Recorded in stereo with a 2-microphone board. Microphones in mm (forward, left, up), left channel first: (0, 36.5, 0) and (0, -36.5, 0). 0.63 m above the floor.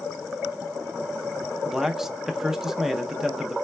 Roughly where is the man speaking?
Centre.